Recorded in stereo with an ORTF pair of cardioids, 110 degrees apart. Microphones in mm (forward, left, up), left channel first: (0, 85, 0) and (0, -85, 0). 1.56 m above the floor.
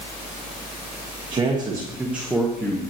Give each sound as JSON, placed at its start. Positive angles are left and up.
{"t": 1.3, "sound": "a man speaking", "azimuth_deg": -30, "distance_m": 1.3}